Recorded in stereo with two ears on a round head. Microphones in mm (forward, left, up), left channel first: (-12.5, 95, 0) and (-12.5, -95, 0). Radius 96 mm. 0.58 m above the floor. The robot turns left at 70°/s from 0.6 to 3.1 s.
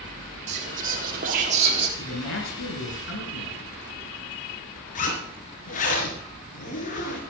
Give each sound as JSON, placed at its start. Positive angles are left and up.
{"t": 0.5, "sound": "whispering", "azimuth_deg": -55, "distance_m": 1.5}
{"t": 2.0, "sound": "a man speaking", "azimuth_deg": 130, "distance_m": 7.5}
{"t": 5.0, "sound": "a zipper", "side_deg": 40, "distance_m": 4.0}